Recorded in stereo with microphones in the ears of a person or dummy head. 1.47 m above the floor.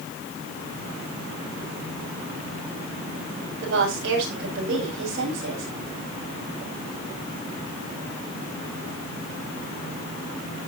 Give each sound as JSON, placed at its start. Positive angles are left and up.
{"t": 3.6, "sound": "a woman speaking", "side_deg": -65, "distance_m": 6.0}